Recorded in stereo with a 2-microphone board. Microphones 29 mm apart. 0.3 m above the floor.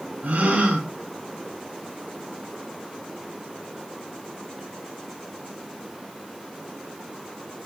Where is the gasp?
75° right (ahead or behind), 5 m.